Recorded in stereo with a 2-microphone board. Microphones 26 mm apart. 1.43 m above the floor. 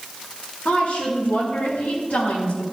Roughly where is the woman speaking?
Left.